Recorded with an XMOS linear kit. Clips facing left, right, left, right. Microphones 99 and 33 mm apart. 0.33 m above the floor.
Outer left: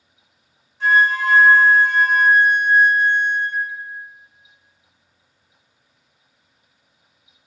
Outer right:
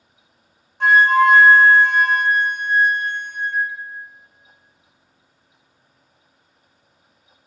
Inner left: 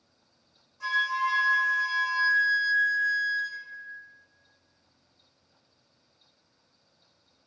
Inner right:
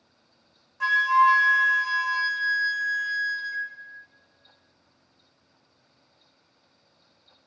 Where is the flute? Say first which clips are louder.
Outer right 4 dB, inner right 8 dB; 65° right (ahead or behind), 0.5 m.